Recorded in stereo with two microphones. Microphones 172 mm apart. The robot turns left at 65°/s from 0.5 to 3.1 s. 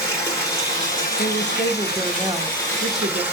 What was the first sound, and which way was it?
Running water, 160° left.